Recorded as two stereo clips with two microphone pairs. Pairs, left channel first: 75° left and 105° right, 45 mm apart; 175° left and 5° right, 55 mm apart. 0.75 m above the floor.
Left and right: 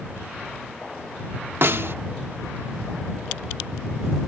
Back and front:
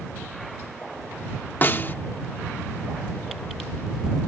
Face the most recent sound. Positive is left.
turn(degrees=-140)